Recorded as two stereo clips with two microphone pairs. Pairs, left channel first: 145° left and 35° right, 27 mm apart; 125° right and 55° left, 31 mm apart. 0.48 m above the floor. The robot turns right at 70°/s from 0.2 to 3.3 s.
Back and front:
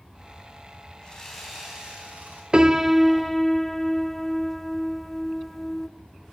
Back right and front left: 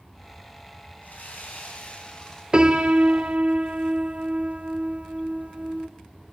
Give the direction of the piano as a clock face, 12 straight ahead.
12 o'clock.